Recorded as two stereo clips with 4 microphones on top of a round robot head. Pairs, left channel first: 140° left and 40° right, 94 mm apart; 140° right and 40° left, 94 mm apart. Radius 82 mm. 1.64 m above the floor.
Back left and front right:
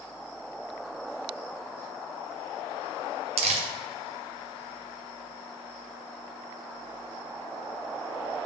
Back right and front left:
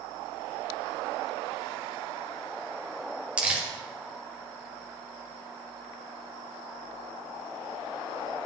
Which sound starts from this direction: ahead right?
Crumpling, at 3.4 s.